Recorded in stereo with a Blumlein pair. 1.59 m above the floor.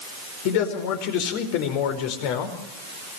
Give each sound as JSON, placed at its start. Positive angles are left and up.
{"t": 0.5, "sound": "a man speaking", "azimuth_deg": 45, "distance_m": 5.0}